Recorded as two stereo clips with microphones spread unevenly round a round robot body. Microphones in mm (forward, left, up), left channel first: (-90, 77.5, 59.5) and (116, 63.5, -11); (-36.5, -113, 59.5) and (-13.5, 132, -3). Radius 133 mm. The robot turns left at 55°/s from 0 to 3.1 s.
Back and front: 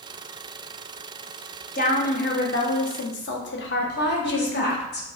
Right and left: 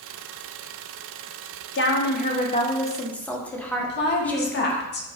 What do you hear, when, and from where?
1.8 s a woman speaking: 125° right, 0.8 m; by 4.8 s 160° left, 0.8 m
3.8 s a woman speaking: 140° right, 0.9 m